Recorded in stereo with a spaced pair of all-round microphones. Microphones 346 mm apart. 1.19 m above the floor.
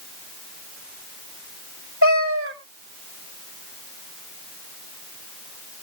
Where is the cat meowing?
35° right (ahead or behind), 3 m.